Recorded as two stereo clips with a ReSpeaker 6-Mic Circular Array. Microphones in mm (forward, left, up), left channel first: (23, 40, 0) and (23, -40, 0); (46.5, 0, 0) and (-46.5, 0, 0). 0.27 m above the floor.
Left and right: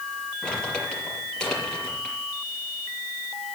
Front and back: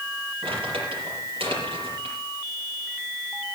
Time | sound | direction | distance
0.4 | crumpling | 170° left | 6.5 m